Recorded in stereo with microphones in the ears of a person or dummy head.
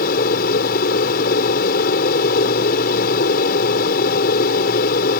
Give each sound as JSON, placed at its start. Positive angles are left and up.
{"t": 0.0, "sound": "an aircraft", "side_deg": 55}